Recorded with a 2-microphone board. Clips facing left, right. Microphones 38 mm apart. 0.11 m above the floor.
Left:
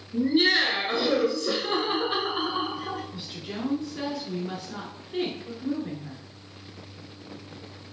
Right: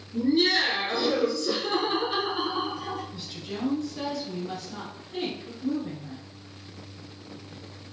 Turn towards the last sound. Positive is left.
turn(degrees=25)  # may be behind; listen again after turning